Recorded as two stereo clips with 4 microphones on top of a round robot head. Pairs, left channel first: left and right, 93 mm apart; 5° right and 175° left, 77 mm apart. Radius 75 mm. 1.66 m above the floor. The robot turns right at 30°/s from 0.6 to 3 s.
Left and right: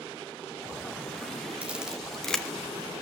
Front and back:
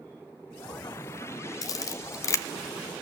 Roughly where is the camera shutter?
Ahead.